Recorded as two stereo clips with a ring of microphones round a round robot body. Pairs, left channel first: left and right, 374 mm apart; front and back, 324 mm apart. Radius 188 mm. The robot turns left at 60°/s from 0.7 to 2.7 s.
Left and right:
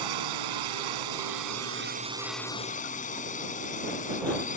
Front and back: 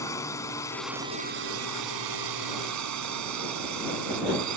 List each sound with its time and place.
0.0 s a drone: 80° right; by 4.6 s 160° left